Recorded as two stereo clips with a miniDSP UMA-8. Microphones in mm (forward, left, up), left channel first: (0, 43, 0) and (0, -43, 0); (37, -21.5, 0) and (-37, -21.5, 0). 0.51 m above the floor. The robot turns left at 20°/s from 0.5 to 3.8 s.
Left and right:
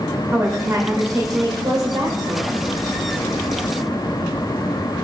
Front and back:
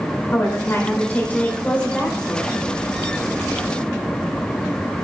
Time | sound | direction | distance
0.3 | a woman speaking | 45° right | 1.7 m